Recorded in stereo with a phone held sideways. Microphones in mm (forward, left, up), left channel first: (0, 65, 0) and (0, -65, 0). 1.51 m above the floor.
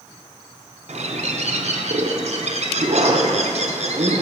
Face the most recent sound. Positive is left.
turn(degrees=-60)  # may be behind; listen again after turning